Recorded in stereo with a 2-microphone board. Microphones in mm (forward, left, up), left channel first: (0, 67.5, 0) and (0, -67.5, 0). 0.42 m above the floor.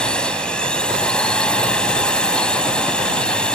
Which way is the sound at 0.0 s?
5° left (ahead or behind).